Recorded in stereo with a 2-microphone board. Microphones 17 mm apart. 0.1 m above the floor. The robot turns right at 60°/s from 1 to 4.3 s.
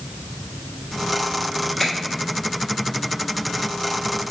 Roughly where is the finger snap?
Centre.